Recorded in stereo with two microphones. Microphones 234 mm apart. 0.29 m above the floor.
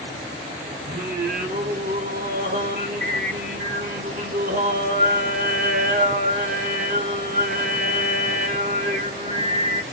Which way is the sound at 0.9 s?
40° right (ahead or behind).